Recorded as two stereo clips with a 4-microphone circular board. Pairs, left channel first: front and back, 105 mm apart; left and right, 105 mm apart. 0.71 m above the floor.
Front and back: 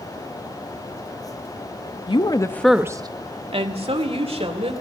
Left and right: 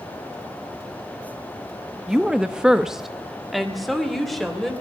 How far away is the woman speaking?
About 1.1 m.